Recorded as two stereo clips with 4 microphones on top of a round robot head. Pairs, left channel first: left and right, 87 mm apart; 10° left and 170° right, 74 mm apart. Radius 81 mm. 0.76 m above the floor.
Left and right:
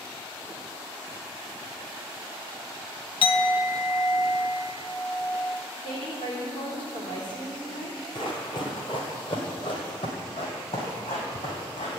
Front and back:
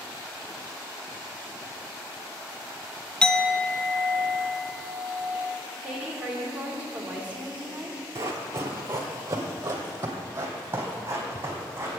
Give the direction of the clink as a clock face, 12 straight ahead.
9 o'clock.